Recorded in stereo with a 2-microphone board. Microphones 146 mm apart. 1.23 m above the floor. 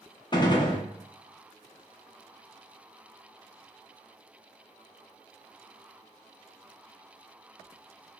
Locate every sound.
0.3 s a gunshot: 30° left (ahead or behind), 0.6 m